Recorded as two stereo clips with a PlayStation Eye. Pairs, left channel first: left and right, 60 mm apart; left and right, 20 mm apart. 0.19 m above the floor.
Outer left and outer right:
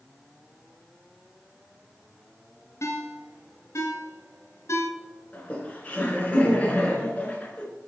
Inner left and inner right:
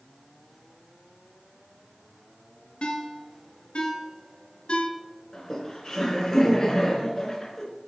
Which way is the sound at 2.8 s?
60° left (ahead or behind).